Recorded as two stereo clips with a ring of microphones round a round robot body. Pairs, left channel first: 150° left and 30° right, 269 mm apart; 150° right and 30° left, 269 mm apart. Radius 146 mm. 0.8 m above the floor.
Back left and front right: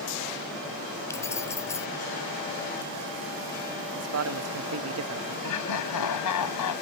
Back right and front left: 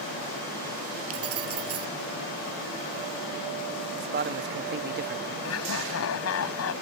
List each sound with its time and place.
1.1 s keys jangling: 70° left
4.0 s a man speaking: 15° right
5.4 s laughter: 170° left